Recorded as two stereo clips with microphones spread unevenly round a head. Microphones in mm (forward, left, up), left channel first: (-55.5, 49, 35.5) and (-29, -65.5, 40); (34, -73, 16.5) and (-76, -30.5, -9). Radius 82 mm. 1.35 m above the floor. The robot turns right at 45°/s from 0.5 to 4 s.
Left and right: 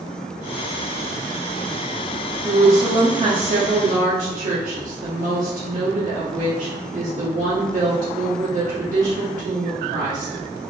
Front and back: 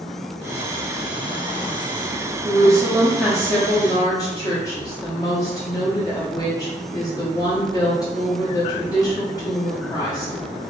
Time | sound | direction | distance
2.5 | a woman speaking | 150° right | 1.0 m